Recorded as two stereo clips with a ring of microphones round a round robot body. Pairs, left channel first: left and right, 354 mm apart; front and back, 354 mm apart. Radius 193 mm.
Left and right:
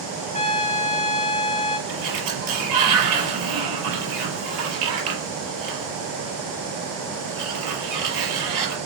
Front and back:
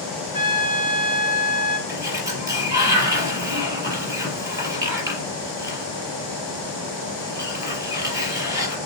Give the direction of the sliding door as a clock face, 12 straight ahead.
3 o'clock.